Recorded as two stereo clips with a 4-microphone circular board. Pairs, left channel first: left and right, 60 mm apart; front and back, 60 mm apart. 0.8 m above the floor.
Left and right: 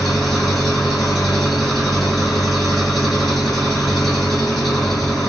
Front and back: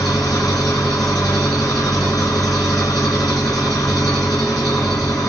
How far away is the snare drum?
No snare drum in this recording.